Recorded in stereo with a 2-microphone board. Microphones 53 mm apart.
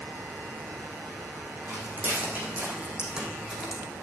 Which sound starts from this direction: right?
Footsteps, at 1.7 s.